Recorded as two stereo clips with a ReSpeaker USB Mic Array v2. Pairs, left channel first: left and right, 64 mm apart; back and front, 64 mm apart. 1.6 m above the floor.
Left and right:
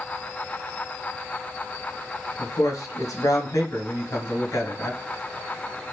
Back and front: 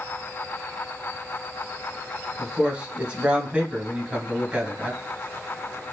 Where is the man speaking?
70° left, 1.7 m.